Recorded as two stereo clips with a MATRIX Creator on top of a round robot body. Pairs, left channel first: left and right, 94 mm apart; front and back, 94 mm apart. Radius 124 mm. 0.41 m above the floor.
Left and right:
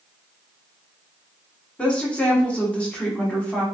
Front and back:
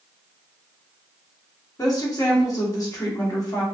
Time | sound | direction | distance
1.8 | a woman speaking | 20° left | 1.4 m